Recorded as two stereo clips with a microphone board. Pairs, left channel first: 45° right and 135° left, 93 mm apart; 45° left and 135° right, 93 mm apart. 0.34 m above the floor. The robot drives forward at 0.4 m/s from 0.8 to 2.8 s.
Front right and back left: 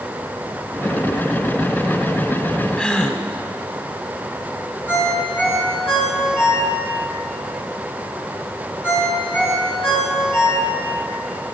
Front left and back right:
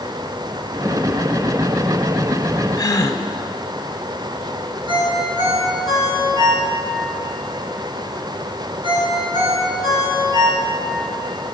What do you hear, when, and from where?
2.8 s a gasp: 25° left, 0.5 m
4.9 s a ringtone: 110° right, 2.5 m